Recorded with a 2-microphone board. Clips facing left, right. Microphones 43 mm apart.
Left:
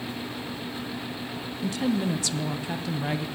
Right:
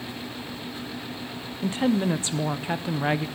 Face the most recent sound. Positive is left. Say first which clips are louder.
# right 3 dB
turn(degrees=-30)  # may be behind; listen again after turning